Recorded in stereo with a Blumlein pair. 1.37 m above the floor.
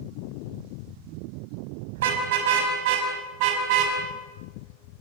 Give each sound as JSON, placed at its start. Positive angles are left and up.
{"t": 1.9, "sound": "a car horn", "azimuth_deg": -55, "distance_m": 5.0}